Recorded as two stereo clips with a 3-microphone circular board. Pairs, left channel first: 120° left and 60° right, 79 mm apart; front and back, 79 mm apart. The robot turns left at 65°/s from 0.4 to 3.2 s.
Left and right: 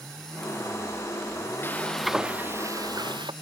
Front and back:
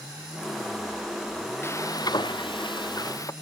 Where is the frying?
60° left; by 3.3 s 45° right.